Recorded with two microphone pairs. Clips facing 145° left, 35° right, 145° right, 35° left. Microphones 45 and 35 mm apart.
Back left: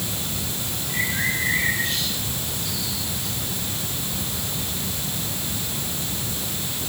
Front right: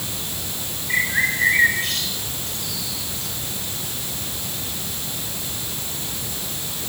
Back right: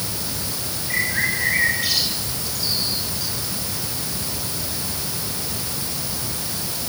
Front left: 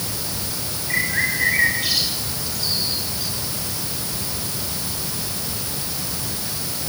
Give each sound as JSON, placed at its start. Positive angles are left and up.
{"t": 0.9, "sound": "a bird", "azimuth_deg": -50, "distance_m": 6.5}